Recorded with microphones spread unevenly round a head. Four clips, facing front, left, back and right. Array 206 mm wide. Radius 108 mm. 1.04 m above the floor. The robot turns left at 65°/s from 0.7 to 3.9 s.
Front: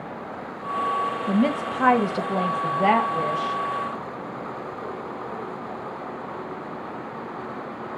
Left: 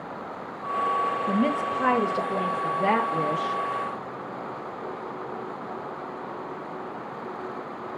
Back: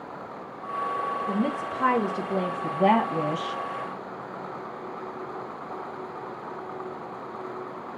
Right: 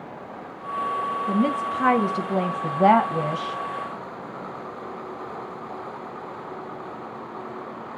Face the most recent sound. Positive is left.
turn(degrees=-140)